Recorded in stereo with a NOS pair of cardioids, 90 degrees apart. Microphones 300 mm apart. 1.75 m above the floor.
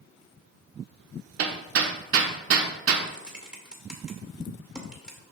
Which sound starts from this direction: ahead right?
Hammering, at 1.4 s.